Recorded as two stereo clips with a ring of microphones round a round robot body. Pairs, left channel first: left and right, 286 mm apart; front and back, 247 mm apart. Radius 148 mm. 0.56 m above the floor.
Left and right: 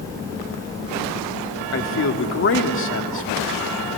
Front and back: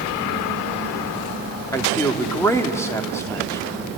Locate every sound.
1.7 s a man speaking: 75° left, 1.7 m